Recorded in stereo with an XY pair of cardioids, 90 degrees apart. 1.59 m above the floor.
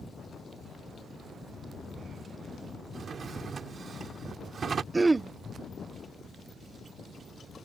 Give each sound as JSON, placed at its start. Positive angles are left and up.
{"t": 2.9, "sound": "a drawer", "azimuth_deg": -50}
{"t": 4.9, "sound": "throat clearing", "azimuth_deg": -25}